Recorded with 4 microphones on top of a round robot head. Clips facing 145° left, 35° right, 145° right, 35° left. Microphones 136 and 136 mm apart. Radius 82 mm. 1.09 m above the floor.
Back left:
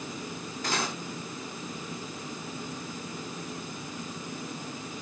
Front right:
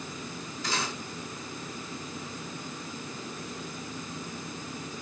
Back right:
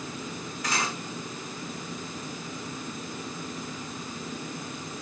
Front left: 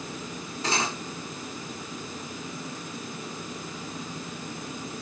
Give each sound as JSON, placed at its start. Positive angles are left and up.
{"t": 0.6, "sound": "cutlery clinking", "azimuth_deg": 100, "distance_m": 2.5}